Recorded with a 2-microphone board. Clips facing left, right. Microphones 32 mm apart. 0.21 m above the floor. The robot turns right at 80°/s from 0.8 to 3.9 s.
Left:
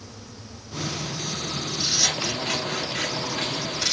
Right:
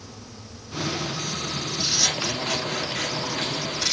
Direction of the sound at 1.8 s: 5° right (ahead or behind).